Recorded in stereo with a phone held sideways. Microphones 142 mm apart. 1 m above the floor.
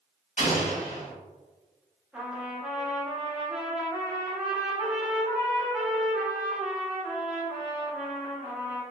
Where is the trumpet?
5° right (ahead or behind), 0.6 m.